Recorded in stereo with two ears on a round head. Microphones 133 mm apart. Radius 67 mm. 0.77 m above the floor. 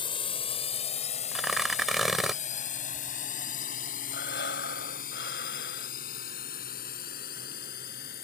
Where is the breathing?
80° left.